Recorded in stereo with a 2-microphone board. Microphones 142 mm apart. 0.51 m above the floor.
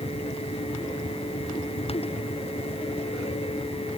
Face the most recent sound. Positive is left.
No sound to turn to.